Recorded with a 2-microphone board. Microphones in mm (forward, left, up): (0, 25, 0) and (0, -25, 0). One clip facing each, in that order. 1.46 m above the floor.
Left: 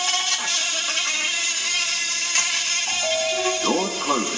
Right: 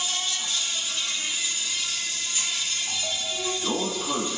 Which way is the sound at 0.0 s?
75° left (ahead or behind).